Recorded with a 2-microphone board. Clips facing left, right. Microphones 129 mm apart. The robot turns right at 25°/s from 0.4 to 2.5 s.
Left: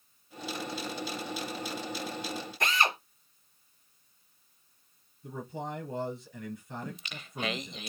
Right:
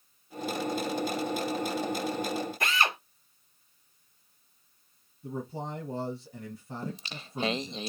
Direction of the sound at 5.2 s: 35° right (ahead or behind).